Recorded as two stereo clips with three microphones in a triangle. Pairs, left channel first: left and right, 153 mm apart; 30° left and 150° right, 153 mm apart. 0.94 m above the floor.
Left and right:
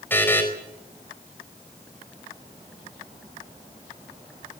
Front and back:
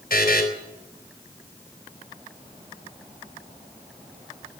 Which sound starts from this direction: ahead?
A buzzer, at 0.1 s.